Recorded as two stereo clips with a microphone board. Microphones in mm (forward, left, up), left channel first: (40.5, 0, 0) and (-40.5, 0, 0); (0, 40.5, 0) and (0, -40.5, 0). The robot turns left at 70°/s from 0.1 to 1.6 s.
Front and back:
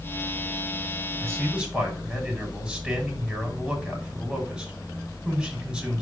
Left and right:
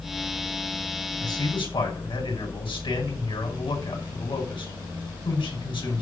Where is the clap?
No clap in this recording.